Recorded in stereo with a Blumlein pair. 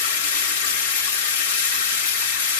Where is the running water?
55° left, 1.2 m.